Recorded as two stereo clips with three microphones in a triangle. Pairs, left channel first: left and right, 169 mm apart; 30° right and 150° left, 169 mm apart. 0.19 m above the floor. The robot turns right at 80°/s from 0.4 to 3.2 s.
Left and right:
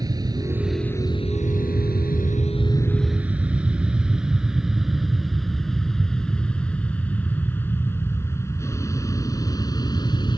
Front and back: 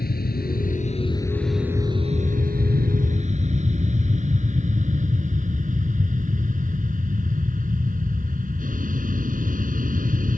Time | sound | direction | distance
0.0 | an aircraft | 25° right | ?